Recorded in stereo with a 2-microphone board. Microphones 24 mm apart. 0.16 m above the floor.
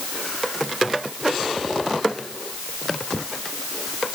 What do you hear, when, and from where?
Only background noise.